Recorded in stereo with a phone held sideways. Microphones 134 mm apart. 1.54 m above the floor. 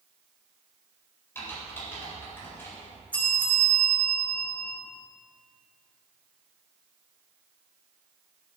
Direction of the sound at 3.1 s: 10° left (ahead or behind).